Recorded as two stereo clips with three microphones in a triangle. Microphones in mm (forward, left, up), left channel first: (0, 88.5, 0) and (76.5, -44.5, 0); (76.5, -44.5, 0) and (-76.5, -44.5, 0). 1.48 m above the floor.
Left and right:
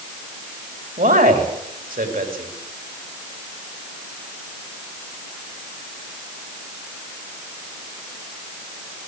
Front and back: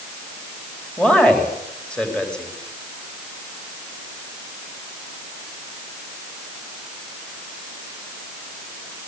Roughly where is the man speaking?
Right.